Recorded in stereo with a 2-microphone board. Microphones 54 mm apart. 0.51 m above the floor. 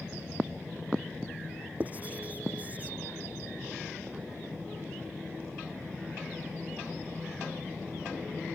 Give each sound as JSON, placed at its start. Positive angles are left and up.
{"t": 1.8, "sound": "writing", "side_deg": -30}